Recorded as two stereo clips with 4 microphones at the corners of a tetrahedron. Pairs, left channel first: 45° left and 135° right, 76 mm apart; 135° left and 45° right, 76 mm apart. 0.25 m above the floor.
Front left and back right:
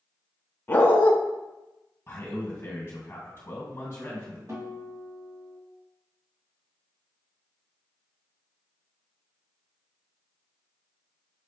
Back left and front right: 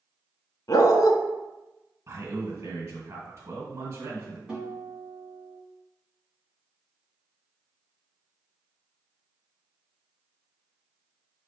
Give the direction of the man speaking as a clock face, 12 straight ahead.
12 o'clock.